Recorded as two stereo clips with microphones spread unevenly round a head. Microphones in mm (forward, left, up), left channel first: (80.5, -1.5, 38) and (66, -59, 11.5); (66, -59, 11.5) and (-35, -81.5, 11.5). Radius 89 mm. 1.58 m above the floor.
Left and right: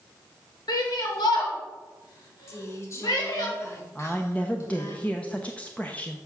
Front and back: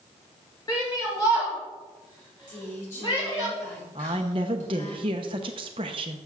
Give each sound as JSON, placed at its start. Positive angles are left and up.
{"t": 0.7, "sound": "a shout", "azimuth_deg": 85, "distance_m": 2.5}
{"t": 2.5, "sound": "a woman speaking", "azimuth_deg": 45, "distance_m": 6.0}
{"t": 4.0, "sound": "a woman speaking", "azimuth_deg": 140, "distance_m": 0.8}